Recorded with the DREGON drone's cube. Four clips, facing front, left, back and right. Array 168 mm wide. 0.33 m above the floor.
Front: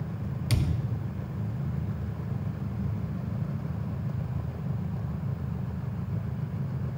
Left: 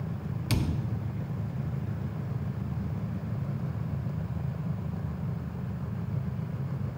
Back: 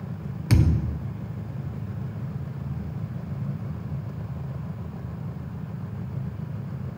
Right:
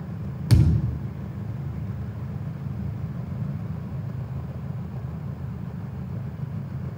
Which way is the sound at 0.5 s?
140° right.